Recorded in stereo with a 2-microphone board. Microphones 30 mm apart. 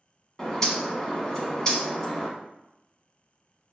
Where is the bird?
20° left (ahead or behind), 0.7 m.